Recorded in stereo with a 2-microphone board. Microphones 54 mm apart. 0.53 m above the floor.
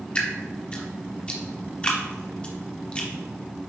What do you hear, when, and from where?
0.1 s dripping: 20° left (ahead or behind), 1.2 m